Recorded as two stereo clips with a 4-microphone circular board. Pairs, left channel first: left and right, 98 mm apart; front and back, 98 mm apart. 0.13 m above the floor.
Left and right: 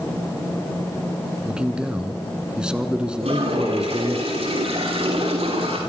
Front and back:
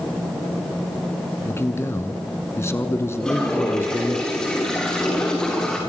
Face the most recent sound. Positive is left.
turn(degrees=-85)